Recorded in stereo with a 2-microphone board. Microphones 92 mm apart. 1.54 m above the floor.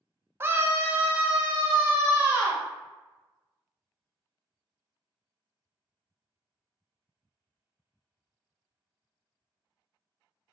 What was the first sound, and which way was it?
A scream, 25° right (ahead or behind).